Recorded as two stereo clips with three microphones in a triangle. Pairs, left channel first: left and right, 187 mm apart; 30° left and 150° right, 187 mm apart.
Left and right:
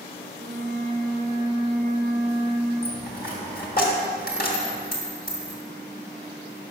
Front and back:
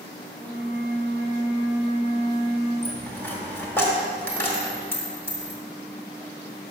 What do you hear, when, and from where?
0.3 s a flute: 35° right, 3 m
2.8 s a dropped coin: 105° left, 1.5 m